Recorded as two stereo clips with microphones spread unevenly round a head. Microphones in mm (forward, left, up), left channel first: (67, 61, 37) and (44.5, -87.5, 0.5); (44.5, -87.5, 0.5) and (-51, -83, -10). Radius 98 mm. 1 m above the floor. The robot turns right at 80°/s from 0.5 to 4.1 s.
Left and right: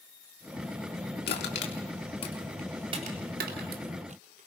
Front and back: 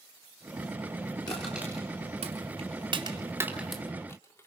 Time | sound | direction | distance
1.3 | crushing | 70° left | 3 m